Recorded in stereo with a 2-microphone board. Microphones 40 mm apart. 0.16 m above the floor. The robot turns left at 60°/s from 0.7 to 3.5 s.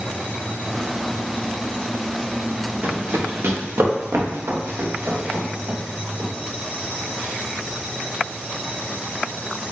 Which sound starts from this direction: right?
Running footsteps, at 2.8 s.